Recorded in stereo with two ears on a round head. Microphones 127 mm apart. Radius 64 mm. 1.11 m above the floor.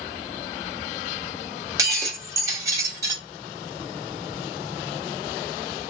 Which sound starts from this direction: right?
Breaking glass, at 1.8 s.